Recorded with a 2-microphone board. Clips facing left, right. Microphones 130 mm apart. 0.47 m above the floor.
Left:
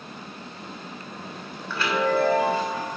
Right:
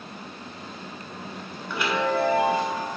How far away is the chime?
About 1.4 m.